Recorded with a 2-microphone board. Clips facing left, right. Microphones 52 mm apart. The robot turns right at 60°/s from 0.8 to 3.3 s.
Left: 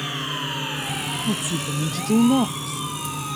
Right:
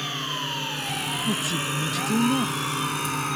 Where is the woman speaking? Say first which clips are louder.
Left 1 dB; 5° left; by 2.8 s 100° left.